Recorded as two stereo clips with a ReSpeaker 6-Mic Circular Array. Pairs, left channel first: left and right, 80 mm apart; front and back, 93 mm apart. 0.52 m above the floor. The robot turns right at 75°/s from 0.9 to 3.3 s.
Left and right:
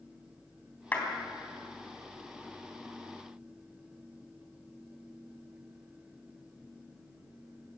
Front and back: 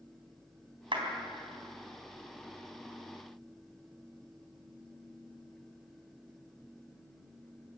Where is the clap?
155° left, 3.5 m; by 1.1 s 170° left, 3.5 m.